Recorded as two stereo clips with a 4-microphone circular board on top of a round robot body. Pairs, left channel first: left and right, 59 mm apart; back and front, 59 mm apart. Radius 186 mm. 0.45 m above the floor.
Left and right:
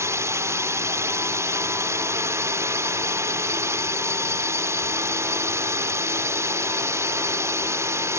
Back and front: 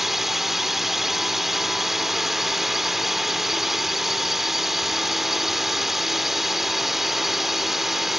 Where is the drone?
85° right.